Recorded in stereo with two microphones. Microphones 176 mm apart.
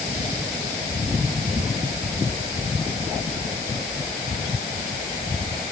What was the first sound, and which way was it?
Only background noise.